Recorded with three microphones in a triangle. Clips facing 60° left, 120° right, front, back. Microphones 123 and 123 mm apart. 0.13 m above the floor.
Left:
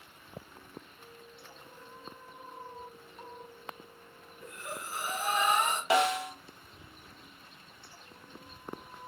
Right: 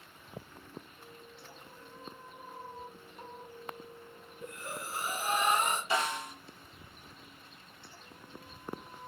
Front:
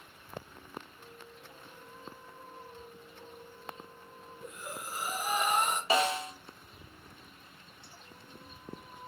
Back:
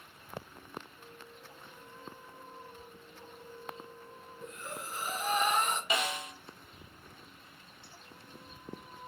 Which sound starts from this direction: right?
Breathing, at 4.4 s.